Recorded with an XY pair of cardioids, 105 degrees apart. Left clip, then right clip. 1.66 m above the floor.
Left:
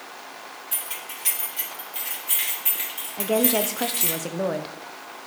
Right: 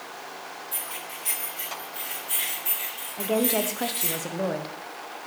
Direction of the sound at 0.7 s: 60° left.